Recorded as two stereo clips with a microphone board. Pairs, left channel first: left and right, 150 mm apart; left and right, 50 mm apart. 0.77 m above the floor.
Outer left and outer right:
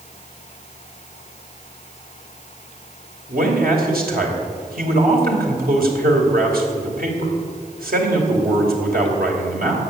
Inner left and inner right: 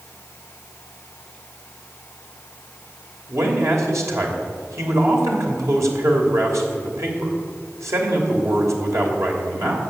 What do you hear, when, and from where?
3.3 s a man speaking: 80° right, 3 m